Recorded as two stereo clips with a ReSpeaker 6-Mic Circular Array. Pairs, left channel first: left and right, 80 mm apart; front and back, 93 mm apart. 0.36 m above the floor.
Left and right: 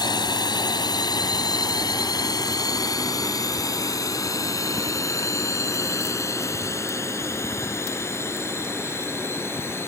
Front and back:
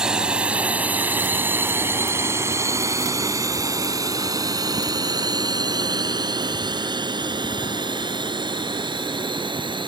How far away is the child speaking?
I don't hear a child speaking.